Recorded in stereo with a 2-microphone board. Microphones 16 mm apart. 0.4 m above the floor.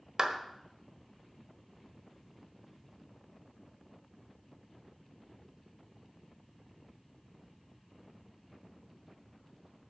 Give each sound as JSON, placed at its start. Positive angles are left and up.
{"t": 0.2, "sound": "a clap", "side_deg": -40, "distance_m": 1.1}